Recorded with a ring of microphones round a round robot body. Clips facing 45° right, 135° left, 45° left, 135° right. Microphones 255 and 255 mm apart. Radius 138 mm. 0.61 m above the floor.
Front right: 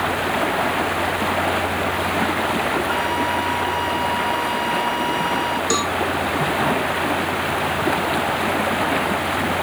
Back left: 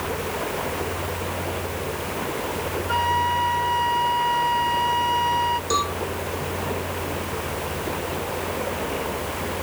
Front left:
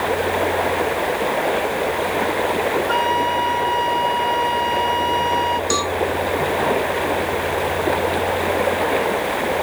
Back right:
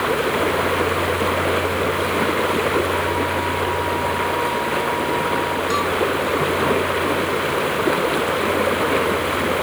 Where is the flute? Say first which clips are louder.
Front right 5 dB, back right 1 dB; 35° left.